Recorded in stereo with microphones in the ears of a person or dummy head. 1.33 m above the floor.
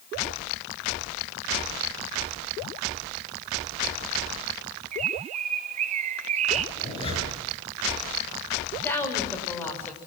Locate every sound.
4.9 s a bird: 40° right (ahead or behind), 0.9 m
6.8 s a zipper: 30° left (ahead or behind), 9.5 m
8.8 s a woman speaking: 15° left (ahead or behind), 6.5 m